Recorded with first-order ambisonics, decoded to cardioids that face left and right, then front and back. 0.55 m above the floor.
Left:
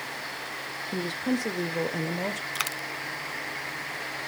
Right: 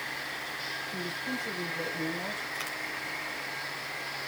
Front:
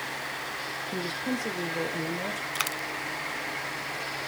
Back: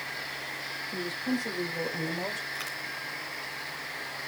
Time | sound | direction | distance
0.9 | a woman speaking | 65° left | 1.4 m
2.5 | a dropped coin | 40° left | 0.6 m